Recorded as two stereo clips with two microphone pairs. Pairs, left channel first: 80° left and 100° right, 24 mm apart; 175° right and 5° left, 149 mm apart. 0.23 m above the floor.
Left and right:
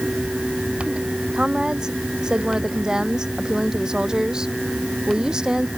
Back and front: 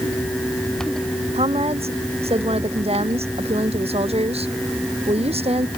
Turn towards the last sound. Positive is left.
turn(degrees=-40)